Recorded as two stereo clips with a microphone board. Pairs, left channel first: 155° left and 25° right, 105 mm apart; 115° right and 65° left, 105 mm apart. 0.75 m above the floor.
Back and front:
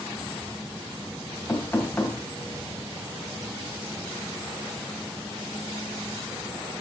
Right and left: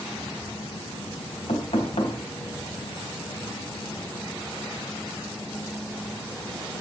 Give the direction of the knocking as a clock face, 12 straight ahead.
4 o'clock.